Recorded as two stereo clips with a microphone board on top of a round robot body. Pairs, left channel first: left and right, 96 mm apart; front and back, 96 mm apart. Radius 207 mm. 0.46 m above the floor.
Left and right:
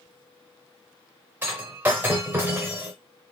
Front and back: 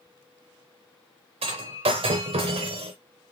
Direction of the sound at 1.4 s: 165° right.